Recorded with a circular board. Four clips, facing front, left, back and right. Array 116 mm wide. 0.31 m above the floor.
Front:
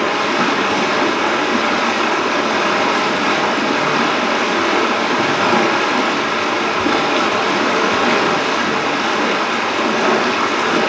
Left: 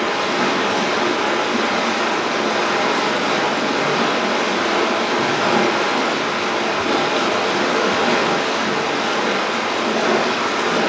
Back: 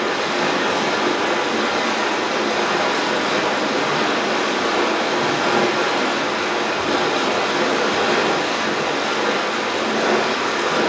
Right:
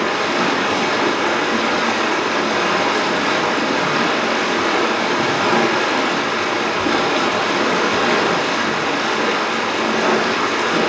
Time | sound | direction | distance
0.0 | running water | 5° right | 1.8 m